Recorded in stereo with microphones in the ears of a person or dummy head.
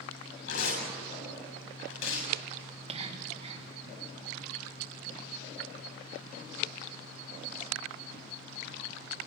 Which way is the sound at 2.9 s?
40° right (ahead or behind).